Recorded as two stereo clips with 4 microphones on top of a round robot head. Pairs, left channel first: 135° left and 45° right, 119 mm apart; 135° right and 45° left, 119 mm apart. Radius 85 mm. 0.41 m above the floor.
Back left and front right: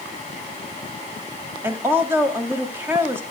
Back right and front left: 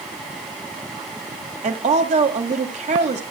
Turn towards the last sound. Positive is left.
turn(degrees=25)